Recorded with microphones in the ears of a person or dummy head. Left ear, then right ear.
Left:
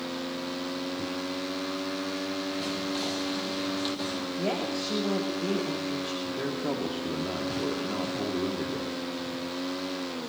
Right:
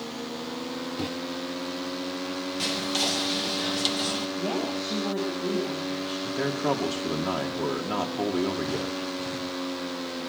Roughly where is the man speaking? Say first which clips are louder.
Right 4 dB; right.